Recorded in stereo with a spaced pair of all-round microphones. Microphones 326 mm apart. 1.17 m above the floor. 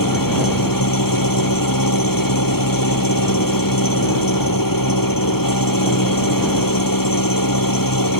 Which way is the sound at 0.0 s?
75° left (ahead or behind).